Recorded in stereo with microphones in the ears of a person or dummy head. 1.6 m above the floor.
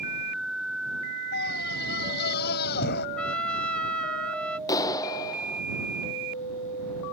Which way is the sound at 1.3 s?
60° left (ahead or behind).